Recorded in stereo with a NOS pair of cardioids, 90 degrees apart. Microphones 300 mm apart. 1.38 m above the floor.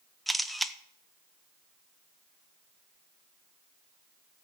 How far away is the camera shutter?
About 0.9 m.